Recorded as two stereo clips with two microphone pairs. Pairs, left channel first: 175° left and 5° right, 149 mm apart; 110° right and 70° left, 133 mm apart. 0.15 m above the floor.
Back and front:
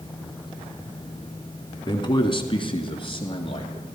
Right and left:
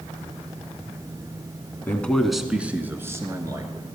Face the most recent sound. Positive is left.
turn(degrees=125)